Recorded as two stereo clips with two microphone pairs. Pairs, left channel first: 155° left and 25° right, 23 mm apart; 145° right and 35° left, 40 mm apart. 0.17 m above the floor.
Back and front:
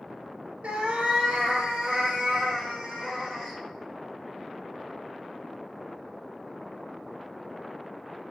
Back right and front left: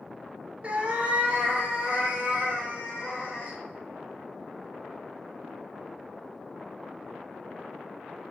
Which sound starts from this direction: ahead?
A cat meowing, at 0.6 s.